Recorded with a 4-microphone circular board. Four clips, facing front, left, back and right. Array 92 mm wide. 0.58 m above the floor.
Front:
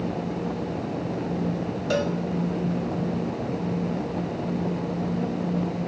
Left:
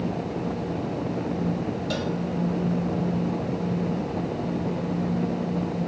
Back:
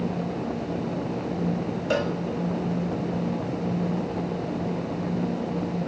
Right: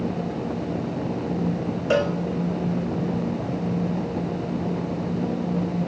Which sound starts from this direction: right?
A cowbell, at 1.9 s.